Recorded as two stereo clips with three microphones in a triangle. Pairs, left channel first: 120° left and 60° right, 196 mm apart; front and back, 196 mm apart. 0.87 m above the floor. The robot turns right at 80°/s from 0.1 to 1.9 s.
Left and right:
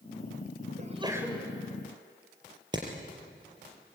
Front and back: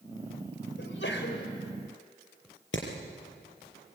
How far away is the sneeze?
About 4.5 m.